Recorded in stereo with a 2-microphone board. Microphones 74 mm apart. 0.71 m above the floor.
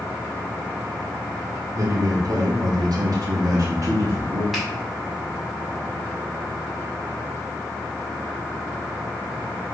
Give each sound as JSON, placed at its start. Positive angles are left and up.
{"t": 1.7, "sound": "a man speaking", "side_deg": -50, "distance_m": 1.2}
{"t": 4.5, "sound": "a finger snap", "side_deg": 0, "distance_m": 1.7}